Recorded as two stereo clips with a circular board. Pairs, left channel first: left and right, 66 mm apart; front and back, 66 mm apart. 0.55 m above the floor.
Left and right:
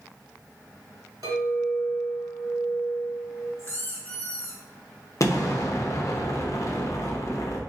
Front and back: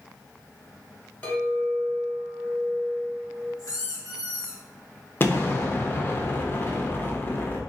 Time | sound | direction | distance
1.2 | a clink | 65° right | 2.0 m
3.6 | a squeak | 25° left | 1.8 m
5.2 | an explosion | 55° left | 0.7 m